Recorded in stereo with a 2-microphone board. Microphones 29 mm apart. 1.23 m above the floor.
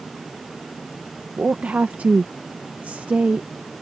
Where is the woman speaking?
60° right (ahead or behind).